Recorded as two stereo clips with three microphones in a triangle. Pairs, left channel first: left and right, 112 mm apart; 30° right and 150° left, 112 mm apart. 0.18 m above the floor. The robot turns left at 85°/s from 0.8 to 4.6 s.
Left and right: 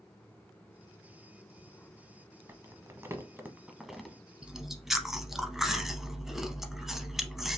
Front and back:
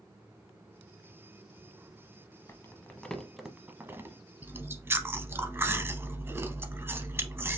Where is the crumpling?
50° right, 0.7 m; by 4.2 s 165° left, 0.7 m.